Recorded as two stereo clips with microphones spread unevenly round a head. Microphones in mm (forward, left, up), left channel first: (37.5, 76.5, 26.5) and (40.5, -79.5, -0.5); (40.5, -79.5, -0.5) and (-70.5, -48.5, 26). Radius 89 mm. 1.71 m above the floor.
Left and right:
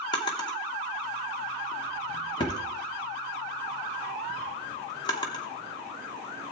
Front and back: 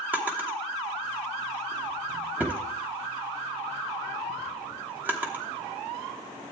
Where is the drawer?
115° left, 1.0 m.